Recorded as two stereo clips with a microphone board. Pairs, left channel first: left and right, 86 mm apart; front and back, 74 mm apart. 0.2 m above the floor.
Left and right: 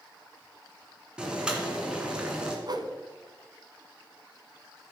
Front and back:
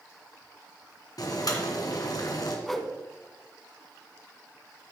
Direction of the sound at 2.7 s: 85° right.